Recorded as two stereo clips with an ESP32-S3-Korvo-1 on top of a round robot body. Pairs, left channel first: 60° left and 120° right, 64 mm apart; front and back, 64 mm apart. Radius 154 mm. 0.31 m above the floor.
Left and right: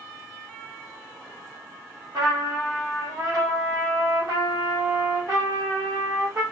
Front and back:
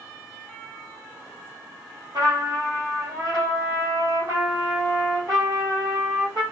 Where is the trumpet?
155° right, 1.9 m.